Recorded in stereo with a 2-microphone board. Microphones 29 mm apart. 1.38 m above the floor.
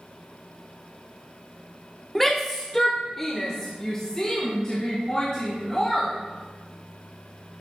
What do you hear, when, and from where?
2.1 s a shout: 5° left (ahead or behind), 0.7 m; by 6.1 s 25° left (ahead or behind), 3 m